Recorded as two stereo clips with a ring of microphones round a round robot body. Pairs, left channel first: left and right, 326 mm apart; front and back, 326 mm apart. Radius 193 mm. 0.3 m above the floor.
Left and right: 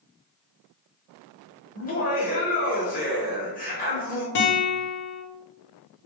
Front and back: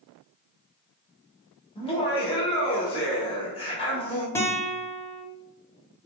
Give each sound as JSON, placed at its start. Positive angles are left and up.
{"t": 1.8, "sound": "laughter", "azimuth_deg": 60, "distance_m": 1.0}
{"t": 4.3, "sound": "a guitar", "azimuth_deg": 85, "distance_m": 0.7}